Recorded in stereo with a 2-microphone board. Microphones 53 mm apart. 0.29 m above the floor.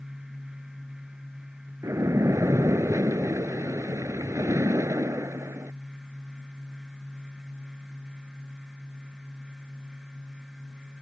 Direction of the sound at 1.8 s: 85° right.